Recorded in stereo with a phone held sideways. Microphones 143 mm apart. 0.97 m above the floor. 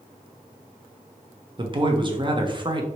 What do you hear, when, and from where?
1.6 s a man speaking: 35° right (ahead or behind), 0.6 m